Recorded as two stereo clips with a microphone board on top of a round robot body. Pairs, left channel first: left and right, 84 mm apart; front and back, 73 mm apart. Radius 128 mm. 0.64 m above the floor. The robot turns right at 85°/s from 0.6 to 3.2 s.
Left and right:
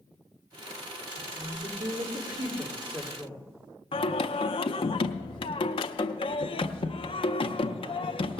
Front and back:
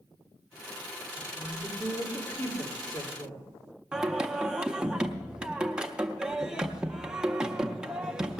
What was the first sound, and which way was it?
A woman speaking, 165° right.